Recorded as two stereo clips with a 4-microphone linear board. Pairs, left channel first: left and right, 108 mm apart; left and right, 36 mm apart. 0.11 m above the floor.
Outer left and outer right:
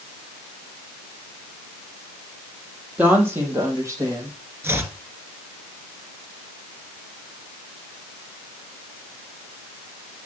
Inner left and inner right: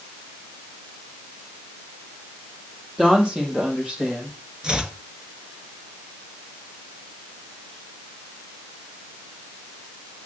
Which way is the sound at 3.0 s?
15° right (ahead or behind).